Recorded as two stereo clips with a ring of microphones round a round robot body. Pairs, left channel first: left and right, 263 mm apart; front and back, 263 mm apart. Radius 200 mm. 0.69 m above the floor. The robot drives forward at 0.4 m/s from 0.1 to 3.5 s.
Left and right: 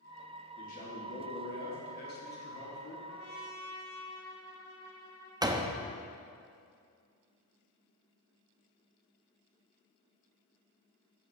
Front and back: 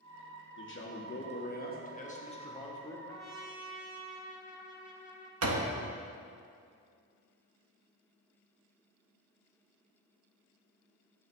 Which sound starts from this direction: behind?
A door slam, at 5.4 s.